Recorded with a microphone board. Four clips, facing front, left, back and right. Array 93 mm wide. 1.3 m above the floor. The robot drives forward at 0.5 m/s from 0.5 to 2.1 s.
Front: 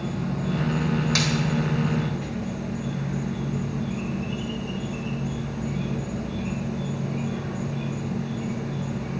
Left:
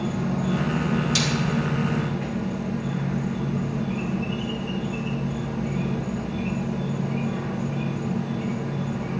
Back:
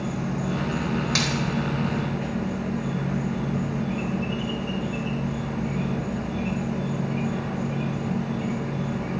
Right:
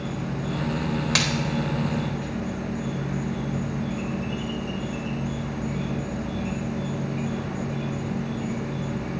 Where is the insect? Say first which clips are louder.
Left 4 dB, back 1 dB; 105° left, 1.3 m; by 9.2 s 135° left, 1.7 m.